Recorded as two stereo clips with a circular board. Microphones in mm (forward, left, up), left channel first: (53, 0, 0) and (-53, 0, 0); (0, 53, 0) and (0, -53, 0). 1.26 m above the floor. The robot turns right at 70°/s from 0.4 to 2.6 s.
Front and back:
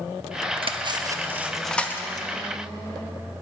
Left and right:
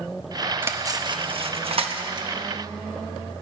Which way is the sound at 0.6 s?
160° right.